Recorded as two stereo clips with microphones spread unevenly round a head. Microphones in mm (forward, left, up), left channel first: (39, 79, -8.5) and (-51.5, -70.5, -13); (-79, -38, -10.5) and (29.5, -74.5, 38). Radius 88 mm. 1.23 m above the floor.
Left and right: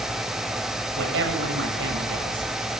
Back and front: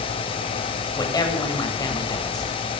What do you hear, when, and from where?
1.0 s a woman speaking: 140° right, 7.5 m